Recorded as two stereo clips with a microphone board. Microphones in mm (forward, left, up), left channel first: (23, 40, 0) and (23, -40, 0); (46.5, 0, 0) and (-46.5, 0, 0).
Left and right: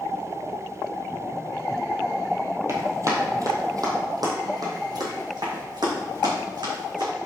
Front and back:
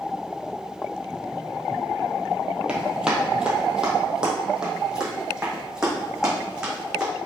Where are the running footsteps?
105° right, 2 m; by 7.1 s 100° right, 5 m.